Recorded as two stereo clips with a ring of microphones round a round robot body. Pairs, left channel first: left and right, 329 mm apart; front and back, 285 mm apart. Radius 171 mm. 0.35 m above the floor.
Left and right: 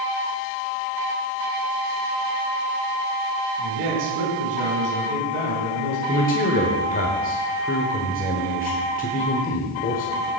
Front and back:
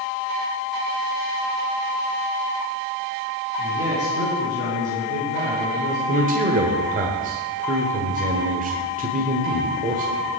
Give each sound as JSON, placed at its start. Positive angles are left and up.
{"t": 3.6, "sound": "a man speaking", "azimuth_deg": -100, "distance_m": 4.5}
{"t": 6.1, "sound": "a man speaking", "azimuth_deg": 140, "distance_m": 1.6}